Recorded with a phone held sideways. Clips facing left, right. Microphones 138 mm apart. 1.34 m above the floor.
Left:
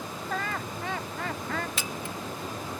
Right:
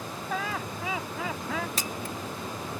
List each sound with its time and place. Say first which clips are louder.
0.3 s laughter: right 1 dB; 5° right (ahead or behind)
1.8 s a camera shutter: right 1 dB; 35° right (ahead or behind)